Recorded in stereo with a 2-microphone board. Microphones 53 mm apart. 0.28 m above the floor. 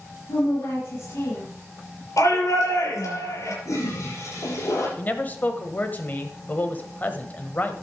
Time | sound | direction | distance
0.3 | a woman speaking | 80° left | 5.5 m
2.2 | a shout | 75° left (ahead or behind) | 5.5 m
3.6 | a toilet flushing | 80° left | 6.5 m
5.0 | a man speaking | 30° left (ahead or behind) | 1.2 m